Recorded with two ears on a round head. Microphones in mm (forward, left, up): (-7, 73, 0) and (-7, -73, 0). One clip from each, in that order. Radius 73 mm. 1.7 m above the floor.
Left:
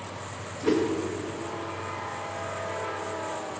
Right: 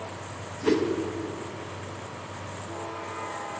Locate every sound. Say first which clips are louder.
0.6 s a whoosh: even; 15° right (ahead or behind), 1.0 m